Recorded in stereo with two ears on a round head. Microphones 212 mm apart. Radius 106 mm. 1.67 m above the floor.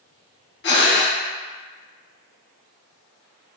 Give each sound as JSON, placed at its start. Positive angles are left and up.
{"t": 0.6, "sound": "breathing", "side_deg": 45, "distance_m": 0.6}